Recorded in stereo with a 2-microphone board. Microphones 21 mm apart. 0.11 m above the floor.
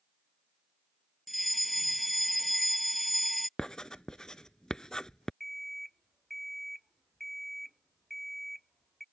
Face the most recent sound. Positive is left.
turn(degrees=5)  # may be behind; listen again after turning